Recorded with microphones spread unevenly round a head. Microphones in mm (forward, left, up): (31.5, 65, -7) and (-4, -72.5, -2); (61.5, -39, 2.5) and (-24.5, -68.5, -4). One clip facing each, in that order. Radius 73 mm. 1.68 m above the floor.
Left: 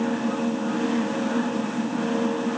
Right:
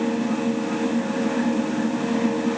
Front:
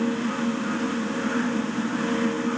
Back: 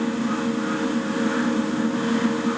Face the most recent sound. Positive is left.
No sound to turn to.